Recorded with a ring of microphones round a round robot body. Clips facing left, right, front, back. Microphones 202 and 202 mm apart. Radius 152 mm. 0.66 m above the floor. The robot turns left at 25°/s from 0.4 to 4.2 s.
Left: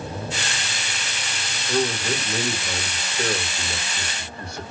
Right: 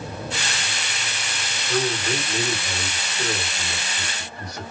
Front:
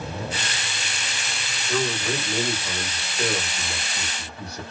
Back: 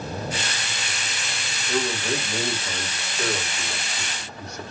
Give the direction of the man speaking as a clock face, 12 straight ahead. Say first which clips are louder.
Left 1 dB, even; 9 o'clock.